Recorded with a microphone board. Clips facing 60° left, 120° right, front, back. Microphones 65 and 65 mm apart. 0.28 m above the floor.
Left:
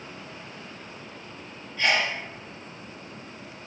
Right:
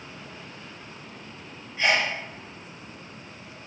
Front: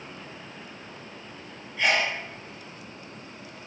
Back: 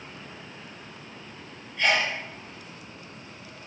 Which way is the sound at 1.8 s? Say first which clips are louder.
Right 1 dB, even; 80° right.